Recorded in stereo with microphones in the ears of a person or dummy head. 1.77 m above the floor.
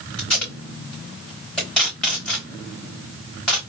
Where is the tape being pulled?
5° left (ahead or behind), 2.5 m.